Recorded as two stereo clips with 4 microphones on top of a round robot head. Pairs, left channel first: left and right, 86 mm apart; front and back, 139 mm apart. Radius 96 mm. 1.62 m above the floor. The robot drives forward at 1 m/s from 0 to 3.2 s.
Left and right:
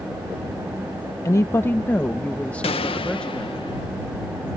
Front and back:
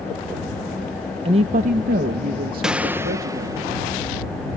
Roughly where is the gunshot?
Left.